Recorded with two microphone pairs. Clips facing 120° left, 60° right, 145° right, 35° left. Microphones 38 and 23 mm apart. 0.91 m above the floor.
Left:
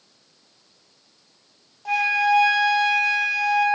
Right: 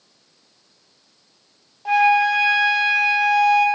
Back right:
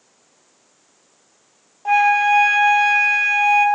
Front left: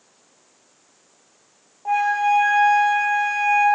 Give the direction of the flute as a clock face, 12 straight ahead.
4 o'clock.